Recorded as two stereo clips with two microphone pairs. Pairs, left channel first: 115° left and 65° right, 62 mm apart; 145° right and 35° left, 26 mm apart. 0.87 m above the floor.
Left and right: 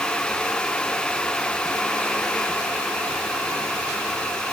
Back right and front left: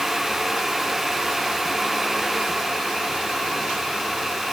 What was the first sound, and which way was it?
Only background noise.